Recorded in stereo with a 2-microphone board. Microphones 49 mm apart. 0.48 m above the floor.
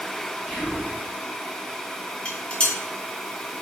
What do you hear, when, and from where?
0.5 s whispering: 5° right (ahead or behind), 0.8 m
2.2 s dishes clattering: 25° left (ahead or behind), 0.7 m